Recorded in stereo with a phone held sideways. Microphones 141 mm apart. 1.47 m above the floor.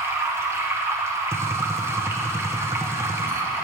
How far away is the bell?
No bell in this recording.